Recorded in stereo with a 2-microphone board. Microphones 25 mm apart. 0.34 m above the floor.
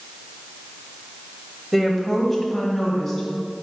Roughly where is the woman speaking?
Centre.